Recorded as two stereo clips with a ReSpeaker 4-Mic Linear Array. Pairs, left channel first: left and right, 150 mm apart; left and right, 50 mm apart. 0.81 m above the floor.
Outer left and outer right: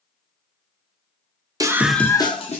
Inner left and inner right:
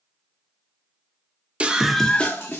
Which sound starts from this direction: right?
A scream, at 1.6 s.